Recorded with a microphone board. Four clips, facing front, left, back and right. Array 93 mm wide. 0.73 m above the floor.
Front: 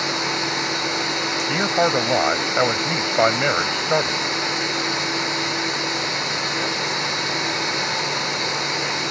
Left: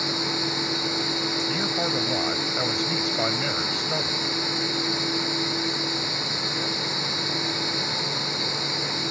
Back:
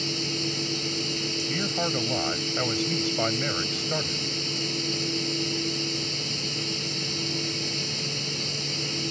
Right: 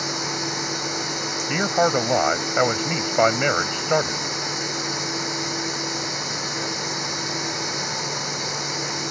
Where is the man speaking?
45° right.